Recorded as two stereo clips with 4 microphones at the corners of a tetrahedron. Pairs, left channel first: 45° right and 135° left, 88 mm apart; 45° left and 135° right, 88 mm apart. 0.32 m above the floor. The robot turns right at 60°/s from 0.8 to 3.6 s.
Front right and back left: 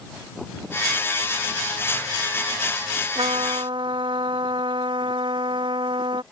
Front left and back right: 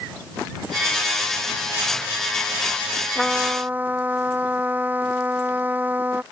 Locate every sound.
3.1 s a trumpet: 130° left; by 6.2 s 155° left